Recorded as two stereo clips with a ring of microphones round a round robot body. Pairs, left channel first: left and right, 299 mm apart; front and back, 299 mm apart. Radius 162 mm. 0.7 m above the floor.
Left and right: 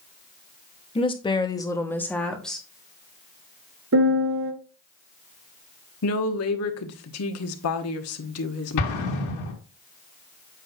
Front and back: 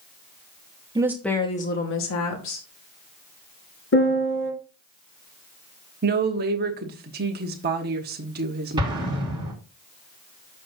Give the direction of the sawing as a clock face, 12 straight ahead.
No sawing in this recording.